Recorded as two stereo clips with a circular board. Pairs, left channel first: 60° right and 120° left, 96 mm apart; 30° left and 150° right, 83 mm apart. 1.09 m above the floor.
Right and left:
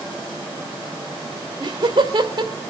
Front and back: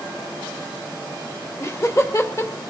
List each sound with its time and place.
1.6 s laughter: 80° left, 2.5 m